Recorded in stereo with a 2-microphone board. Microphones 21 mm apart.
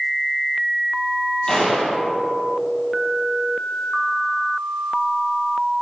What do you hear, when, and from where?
1.5 s a gunshot: 25° left (ahead or behind), 3.5 m